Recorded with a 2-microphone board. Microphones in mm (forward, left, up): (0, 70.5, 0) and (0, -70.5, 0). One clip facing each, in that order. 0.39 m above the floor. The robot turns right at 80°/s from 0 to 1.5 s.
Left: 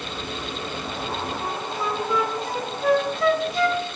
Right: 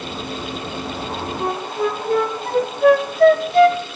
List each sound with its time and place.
1.4 s a flute: 65° right (ahead or behind), 0.9 m; by 3.8 s 60° right (ahead or behind), 0.9 m